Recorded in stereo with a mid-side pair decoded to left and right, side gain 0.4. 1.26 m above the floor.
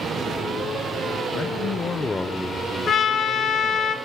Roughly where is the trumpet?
Left.